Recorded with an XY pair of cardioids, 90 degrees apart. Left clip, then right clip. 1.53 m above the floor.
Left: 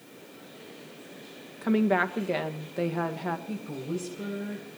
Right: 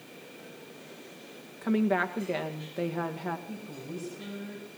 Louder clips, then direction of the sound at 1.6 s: Left 3 dB; 15° left.